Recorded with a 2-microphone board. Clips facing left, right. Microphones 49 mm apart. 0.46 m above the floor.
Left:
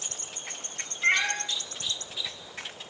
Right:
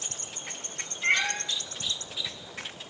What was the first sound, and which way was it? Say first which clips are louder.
A cat meowing: left 1 dB; 10° left (ahead or behind).